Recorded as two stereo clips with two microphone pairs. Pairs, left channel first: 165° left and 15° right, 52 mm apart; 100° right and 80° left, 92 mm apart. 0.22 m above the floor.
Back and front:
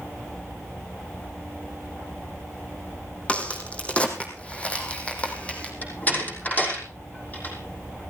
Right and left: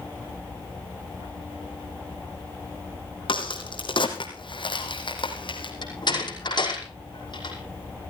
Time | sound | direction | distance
3.3 | a crack | 130° right | 3 m
5.8 | a door slam | 135° right | 5.5 m